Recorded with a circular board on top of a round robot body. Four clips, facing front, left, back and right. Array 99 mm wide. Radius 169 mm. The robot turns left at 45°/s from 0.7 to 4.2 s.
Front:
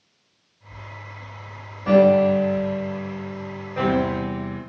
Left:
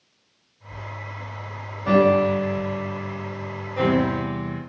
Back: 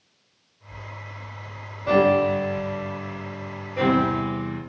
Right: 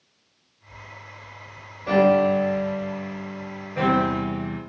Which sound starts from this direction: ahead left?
A piano, at 1.9 s.